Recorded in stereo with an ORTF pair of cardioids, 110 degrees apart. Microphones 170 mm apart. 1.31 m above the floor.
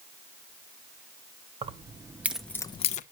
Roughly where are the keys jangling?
Ahead right.